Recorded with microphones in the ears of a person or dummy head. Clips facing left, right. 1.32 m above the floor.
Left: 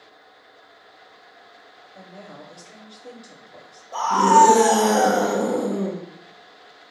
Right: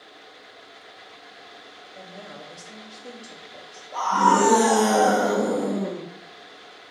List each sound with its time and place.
1.9 s a woman speaking: 5° right (ahead or behind), 0.8 m
3.9 s a scream: 45° left (ahead or behind), 1.0 m